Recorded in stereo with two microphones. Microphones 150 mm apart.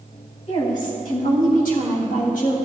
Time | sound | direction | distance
0.5 | a woman speaking | 65° left (ahead or behind) | 3 m